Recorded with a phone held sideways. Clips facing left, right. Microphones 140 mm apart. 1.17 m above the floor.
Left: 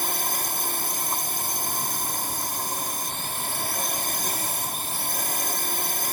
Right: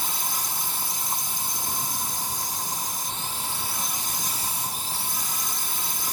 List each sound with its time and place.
0.0 s a drone: 60° left (ahead or behind)